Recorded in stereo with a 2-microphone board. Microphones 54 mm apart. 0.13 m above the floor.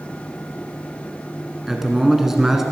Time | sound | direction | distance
1.7 | a man speaking | 10° right (ahead or behind) | 1.2 m